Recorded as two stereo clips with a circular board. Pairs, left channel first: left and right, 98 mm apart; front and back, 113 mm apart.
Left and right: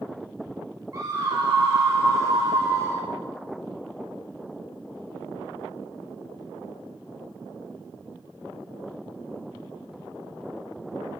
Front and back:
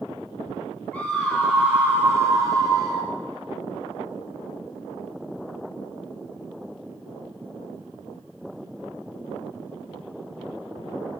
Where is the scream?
70° right, 1.5 m; by 3.1 s 145° right, 2 m.